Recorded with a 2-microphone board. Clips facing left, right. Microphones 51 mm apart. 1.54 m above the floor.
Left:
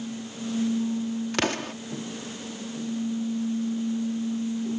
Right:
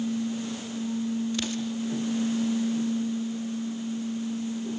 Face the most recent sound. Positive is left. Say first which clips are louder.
# left 3 dB
turn(degrees=70)  # may be behind; listen again after turning